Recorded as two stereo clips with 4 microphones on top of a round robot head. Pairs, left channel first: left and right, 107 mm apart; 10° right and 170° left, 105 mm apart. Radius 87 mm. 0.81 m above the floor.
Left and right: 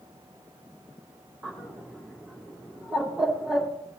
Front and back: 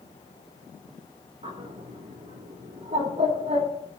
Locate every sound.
1.4 s a bird: 175° right, 2.5 m